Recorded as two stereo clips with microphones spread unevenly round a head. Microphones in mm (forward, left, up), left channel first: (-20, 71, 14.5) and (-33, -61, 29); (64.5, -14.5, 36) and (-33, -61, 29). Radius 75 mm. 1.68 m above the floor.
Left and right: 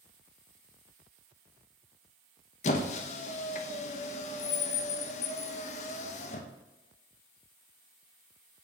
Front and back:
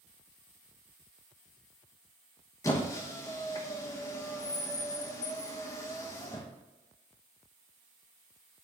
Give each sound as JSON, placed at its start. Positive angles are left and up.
{"t": 2.6, "sound": "a squeak", "azimuth_deg": 80, "distance_m": 1.0}